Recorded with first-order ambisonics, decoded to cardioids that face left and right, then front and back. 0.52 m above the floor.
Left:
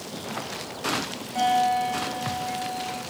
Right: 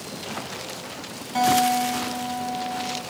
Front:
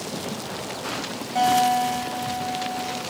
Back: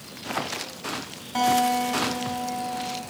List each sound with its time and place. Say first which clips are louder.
1.4 s a guitar: right 2 dB, front 2 dB; 135° right, 1.4 m